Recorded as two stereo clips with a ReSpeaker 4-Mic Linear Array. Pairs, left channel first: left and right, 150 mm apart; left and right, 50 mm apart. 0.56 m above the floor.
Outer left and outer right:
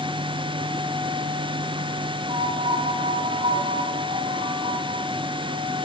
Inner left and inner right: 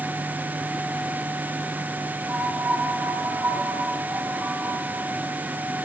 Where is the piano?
50° right (ahead or behind), 4 m.